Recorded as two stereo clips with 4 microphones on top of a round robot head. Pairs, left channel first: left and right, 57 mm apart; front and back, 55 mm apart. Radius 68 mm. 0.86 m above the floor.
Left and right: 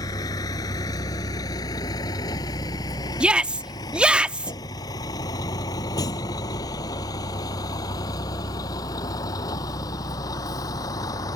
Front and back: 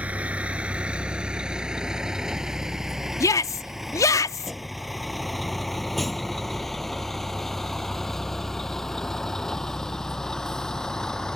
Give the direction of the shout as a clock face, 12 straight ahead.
1 o'clock.